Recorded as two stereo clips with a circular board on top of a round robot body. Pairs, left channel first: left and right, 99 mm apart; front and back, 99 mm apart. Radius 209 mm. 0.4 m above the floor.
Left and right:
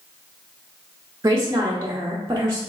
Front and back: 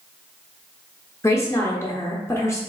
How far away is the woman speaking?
About 0.9 m.